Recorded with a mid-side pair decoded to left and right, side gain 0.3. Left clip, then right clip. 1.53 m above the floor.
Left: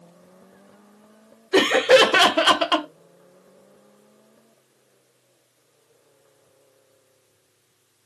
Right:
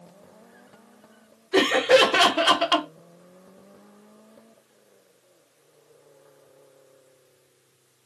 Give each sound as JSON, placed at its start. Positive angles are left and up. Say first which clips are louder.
{"t": 1.5, "sound": "laughter", "louder": "left 3 dB", "azimuth_deg": 50, "distance_m": 0.7}